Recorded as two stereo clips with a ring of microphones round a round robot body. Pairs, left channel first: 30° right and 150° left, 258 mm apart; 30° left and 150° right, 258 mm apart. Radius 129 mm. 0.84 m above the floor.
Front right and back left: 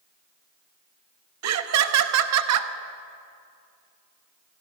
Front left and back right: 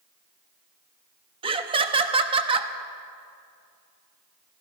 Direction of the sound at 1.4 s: 140° left.